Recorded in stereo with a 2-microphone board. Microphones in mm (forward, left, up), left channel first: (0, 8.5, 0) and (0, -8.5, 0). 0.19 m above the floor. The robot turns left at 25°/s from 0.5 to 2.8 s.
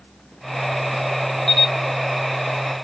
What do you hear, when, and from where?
1.5 s a camera shutter: 30° left (ahead or behind), 1.0 m; by 1.7 s 25° left (ahead or behind), 1.0 m